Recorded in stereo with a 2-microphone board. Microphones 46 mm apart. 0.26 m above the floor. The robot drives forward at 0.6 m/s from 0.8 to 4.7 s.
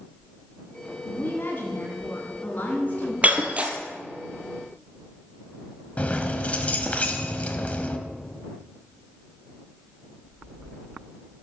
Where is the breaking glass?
30° right (ahead or behind), 1.5 m; by 3.8 s 25° right (ahead or behind), 1.8 m.